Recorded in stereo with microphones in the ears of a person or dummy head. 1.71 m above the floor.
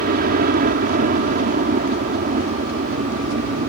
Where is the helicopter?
45° right (ahead or behind); by 3.7 s 40° right (ahead or behind).